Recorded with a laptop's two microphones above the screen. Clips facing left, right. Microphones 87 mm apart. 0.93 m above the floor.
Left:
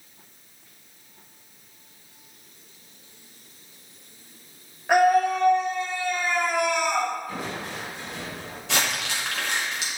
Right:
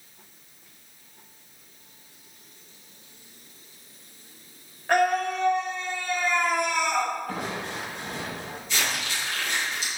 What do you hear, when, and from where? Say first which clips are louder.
4.9 s a scream: left 4 dB; 10° left (ahead or behind), 2.5 m; by 7.1 s centre (ahead or behind), 4 m
7.3 s crushing: right 1 dB; 60° right (ahead or behind), 6 m
8.7 s crumpling: left 3 dB; 75° left (ahead or behind), 5 m